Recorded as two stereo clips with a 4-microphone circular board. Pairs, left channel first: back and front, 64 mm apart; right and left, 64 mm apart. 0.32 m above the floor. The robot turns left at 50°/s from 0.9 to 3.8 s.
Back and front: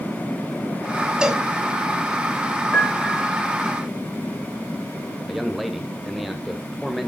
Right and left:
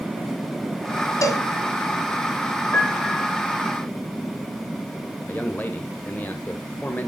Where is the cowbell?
75° right, 1.3 m; by 1.4 s 90° right, 1.3 m.